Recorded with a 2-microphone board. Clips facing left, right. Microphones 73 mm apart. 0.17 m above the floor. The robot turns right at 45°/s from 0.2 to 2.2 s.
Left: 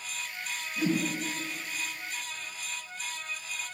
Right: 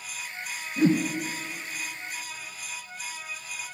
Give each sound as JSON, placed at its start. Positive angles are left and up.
{"t": 0.8, "sound": "a whoosh", "side_deg": -30, "distance_m": 1.6}